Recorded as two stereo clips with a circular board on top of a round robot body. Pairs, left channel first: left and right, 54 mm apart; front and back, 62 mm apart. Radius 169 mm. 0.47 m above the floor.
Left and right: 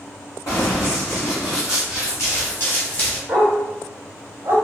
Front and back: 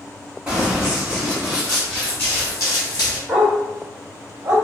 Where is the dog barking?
130° right, 0.8 m.